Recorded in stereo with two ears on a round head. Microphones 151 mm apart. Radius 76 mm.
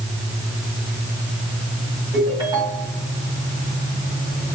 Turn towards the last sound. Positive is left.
turn(degrees=-20)  # may be behind; listen again after turning